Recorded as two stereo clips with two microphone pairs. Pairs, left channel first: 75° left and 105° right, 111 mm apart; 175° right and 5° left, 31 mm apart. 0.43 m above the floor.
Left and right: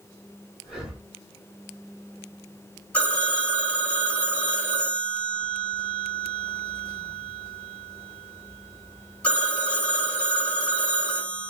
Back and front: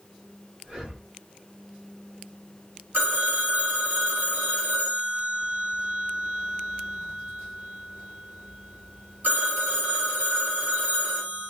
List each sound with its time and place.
0.6 s breathing: 20° right, 1.5 m
2.9 s a phone ringing: straight ahead, 1.6 m